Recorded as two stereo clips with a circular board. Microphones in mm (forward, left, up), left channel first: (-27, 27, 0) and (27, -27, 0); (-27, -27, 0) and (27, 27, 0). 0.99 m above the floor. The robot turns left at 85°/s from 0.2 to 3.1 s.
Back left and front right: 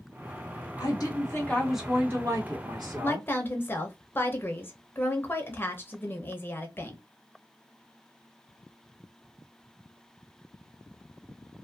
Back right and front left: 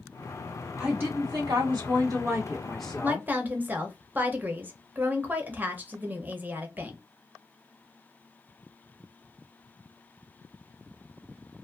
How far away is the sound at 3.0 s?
About 0.7 m.